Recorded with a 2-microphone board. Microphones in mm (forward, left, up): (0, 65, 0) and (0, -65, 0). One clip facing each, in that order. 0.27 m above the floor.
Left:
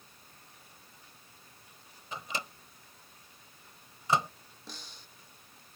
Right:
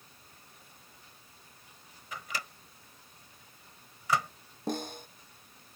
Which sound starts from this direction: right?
A snare drum, at 4.7 s.